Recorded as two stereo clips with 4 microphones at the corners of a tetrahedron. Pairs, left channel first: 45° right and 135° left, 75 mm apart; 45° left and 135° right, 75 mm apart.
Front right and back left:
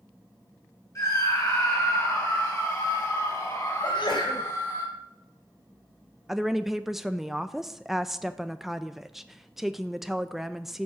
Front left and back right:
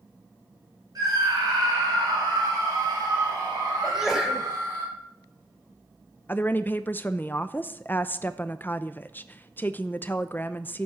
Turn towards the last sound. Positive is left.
turn(degrees=55)